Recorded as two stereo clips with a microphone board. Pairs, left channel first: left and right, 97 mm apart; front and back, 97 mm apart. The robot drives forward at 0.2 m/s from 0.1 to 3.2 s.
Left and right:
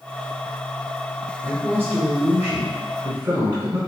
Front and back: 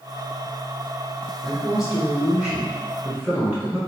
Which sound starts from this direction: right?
A man speaking, at 1.4 s.